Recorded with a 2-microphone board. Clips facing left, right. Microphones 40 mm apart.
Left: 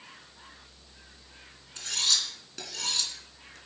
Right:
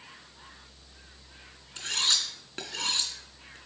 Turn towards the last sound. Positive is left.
turn(degrees=-35)  # may be behind; listen again after turning